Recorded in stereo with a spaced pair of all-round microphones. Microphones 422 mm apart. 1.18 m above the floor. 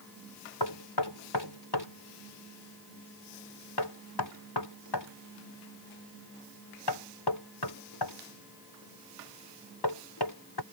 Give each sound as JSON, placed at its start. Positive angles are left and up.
{"t": 0.6, "sound": "knocking", "side_deg": 65}